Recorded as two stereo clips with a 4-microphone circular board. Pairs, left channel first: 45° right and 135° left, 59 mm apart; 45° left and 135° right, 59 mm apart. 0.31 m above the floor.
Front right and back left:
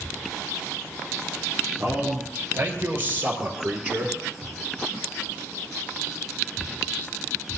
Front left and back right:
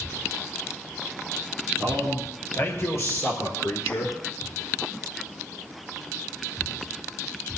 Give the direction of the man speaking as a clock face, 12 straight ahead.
9 o'clock.